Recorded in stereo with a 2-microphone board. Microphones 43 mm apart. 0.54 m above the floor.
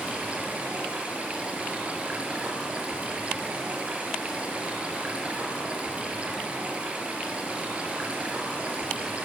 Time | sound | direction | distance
0.0 | running water | 30° right (ahead or behind) | 4.5 m